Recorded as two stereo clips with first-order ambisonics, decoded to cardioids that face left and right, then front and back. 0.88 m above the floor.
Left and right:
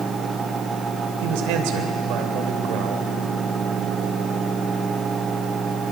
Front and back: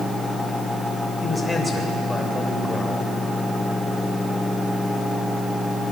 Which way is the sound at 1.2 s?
80° right.